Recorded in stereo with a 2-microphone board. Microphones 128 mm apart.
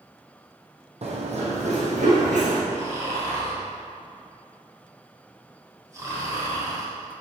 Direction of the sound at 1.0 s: 55° right (ahead or behind).